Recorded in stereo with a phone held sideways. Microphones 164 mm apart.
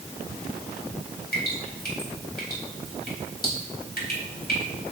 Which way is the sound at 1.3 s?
65° left (ahead or behind).